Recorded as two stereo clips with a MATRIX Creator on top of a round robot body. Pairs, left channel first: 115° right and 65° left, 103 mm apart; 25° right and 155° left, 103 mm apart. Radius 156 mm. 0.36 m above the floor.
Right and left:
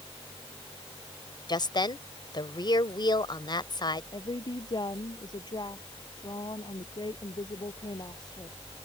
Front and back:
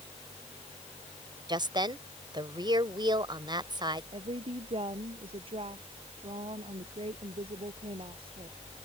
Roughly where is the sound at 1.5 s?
Behind.